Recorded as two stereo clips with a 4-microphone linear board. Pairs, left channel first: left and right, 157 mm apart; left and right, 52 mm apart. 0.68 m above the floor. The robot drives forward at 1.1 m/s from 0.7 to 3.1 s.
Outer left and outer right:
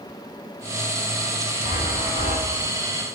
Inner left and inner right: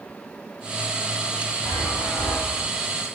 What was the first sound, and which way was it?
A chime, 55° left (ahead or behind).